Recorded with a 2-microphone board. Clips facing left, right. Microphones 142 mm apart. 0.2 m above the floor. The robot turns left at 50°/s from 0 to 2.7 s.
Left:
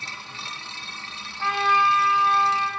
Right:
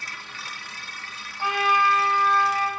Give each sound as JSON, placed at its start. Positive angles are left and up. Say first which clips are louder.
{"t": 1.4, "sound": "a trumpet", "louder": "even", "side_deg": -15, "distance_m": 1.2}